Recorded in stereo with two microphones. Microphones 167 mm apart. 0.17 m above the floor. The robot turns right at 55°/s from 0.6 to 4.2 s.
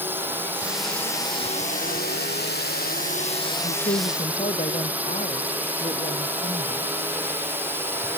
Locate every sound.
0.0 s a drone: 10° right (ahead or behind)
3.6 s a woman speaking: 105° left; by 6.9 s 135° left